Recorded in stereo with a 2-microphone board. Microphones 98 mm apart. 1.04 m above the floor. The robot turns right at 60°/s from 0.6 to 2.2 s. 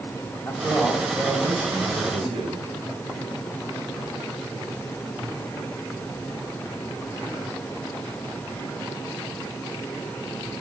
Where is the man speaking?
160° left, 4 m; by 2.7 s 105° right, 4 m.